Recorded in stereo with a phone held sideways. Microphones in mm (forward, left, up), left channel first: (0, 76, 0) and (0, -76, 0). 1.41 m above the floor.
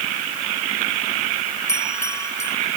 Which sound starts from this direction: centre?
A bell, at 1.7 s.